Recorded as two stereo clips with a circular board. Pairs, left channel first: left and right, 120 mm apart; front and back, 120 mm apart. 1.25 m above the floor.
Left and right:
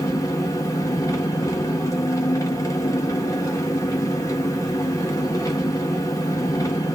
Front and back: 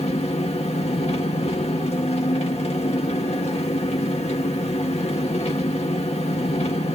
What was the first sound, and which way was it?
An engine running, 30° left.